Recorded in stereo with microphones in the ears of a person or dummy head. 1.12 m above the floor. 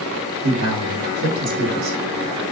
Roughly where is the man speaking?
Right.